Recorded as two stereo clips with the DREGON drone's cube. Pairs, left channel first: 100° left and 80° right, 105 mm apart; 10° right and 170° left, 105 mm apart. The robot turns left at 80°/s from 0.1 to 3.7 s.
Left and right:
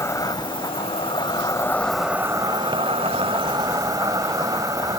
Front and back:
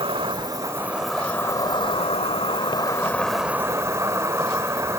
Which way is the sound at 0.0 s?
160° left.